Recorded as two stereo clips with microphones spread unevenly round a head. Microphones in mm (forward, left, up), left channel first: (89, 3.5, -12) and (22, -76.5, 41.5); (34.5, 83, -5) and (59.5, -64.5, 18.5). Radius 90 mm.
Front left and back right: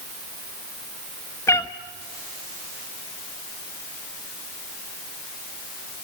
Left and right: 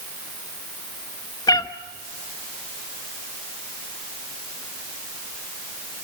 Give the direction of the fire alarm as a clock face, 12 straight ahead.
No fire alarm in this recording.